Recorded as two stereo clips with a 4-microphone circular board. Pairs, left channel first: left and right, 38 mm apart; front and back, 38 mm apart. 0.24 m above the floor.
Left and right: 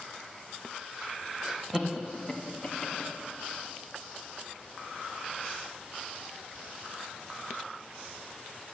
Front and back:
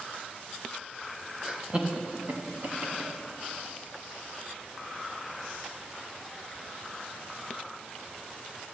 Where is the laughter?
145° right, 1.4 m; by 3.1 s 155° left, 2.5 m.